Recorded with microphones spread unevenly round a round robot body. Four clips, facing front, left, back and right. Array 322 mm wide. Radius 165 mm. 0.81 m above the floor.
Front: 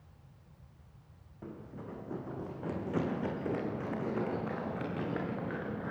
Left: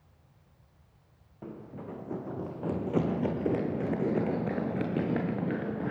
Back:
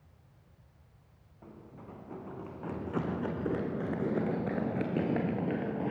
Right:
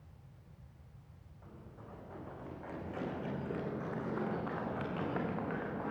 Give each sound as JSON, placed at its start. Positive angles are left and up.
{"t": 1.4, "sound": "running footsteps", "azimuth_deg": 60, "distance_m": 3.0}